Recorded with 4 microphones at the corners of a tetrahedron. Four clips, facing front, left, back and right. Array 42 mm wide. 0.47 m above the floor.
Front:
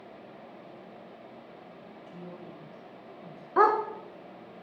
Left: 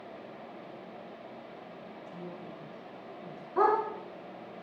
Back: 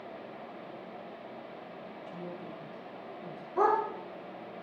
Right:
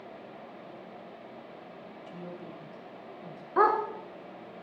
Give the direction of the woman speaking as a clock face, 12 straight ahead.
3 o'clock.